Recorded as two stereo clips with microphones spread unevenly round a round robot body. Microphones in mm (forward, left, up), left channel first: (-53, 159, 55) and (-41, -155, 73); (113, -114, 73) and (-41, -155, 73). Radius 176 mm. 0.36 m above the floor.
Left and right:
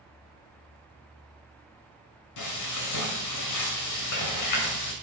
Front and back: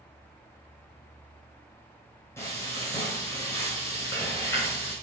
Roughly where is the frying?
Left.